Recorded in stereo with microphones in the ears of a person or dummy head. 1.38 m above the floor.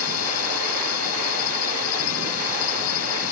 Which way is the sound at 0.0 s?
85° left.